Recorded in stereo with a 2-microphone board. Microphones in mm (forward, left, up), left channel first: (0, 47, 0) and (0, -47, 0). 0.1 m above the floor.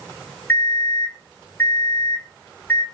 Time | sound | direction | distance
0.5 | an alarm clock | 20° left (ahead or behind) | 3.5 m